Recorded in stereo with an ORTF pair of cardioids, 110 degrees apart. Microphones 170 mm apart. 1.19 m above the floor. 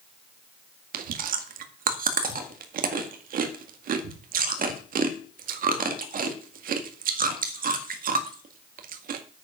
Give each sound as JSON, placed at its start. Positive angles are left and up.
{"t": 0.9, "sound": "chewing", "azimuth_deg": -55, "distance_m": 1.9}